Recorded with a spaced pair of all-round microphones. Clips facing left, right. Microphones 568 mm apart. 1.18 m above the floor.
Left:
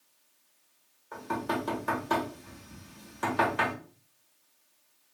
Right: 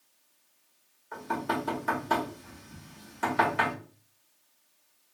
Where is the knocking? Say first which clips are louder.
Even; 5° right (ahead or behind), 1.2 m.